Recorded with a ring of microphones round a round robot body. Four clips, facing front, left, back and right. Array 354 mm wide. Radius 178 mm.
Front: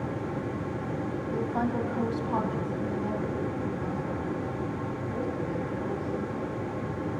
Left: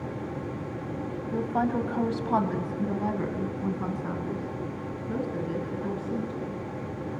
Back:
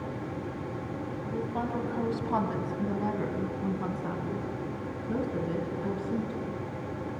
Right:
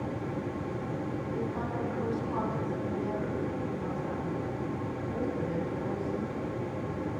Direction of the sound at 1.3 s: 70° left.